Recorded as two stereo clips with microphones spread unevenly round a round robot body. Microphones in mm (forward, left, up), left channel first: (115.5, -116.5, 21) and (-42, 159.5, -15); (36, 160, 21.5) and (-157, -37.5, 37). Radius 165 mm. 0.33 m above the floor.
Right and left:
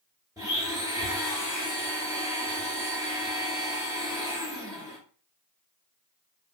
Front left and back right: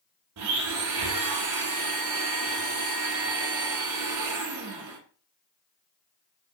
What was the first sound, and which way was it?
A blender, 160° right.